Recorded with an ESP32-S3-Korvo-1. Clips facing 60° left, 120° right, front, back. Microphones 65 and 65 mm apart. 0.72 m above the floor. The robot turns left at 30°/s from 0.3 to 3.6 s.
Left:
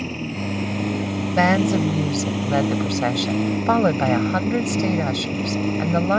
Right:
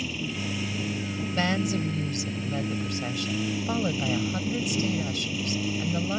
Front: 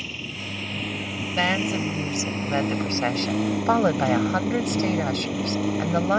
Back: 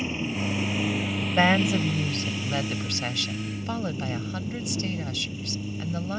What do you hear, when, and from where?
0.0 s a lawn mower: 115° left; by 6.2 s 15° left
1.4 s a woman speaking: 105° left; by 6.2 s 35° left